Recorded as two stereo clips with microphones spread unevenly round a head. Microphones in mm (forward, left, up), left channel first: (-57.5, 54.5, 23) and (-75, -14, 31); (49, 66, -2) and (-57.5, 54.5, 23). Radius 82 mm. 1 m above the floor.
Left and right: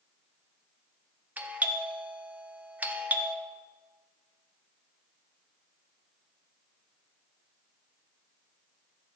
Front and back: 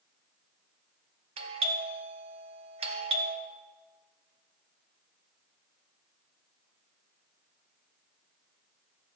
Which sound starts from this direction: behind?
A doorbell, at 1.4 s.